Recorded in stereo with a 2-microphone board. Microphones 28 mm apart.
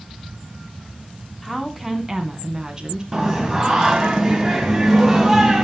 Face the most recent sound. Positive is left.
turn(degrees=-5)  # may be behind; listen again after turning